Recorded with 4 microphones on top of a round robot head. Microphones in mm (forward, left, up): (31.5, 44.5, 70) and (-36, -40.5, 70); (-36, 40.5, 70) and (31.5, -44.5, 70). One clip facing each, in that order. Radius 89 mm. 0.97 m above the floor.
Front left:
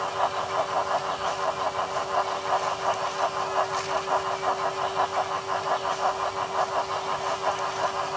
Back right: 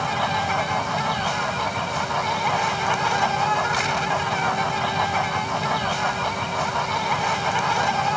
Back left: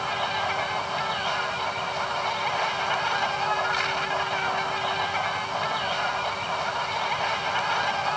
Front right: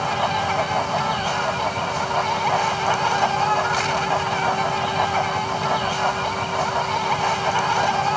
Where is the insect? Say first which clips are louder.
Back right 3 dB, front right 6 dB; 105° right.